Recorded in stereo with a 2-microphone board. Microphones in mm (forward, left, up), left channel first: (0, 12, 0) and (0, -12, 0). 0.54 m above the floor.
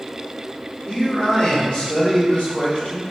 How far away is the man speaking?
About 0.9 m.